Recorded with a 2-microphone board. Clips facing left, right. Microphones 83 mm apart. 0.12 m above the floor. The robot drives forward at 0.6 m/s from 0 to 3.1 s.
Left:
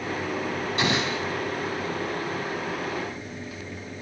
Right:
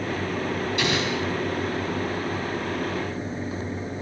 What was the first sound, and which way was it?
An explosion, 35° left (ahead or behind).